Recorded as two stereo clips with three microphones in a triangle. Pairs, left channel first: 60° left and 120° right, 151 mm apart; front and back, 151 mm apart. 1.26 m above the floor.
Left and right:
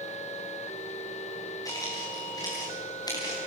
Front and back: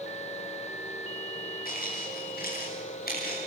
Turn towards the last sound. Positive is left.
turn(degrees=-5)